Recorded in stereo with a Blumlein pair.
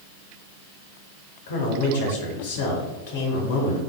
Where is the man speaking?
55° left, 1.5 m.